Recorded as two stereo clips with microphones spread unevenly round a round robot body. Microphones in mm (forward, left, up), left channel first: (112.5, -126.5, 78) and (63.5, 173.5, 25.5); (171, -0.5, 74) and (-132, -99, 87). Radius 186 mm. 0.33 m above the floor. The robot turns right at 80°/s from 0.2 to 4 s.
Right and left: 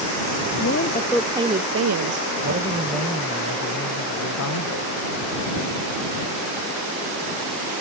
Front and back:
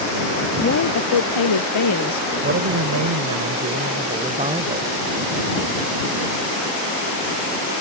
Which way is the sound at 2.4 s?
140° left.